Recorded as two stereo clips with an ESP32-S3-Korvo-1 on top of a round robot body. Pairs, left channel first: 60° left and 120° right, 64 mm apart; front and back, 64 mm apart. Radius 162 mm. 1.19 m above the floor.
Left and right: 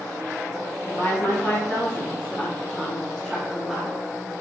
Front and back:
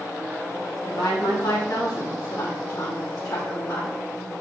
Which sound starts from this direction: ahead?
A woman speaking, at 0.9 s.